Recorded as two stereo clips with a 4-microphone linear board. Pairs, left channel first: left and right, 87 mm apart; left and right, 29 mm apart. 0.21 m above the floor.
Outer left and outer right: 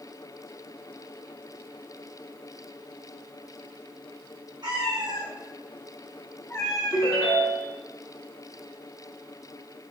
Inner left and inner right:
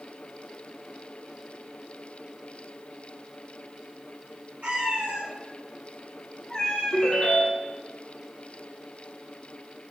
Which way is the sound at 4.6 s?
60° right (ahead or behind).